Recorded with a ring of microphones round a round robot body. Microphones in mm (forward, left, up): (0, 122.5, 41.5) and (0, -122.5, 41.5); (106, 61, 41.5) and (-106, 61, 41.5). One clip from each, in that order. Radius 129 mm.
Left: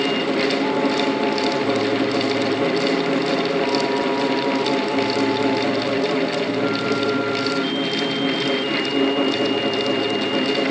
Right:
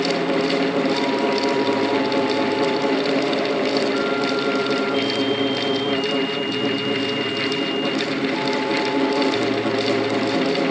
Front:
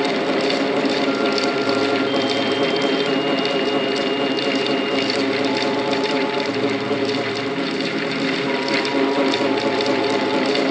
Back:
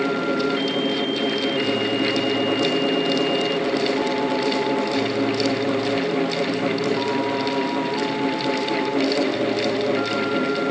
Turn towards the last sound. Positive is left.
No sound to turn to.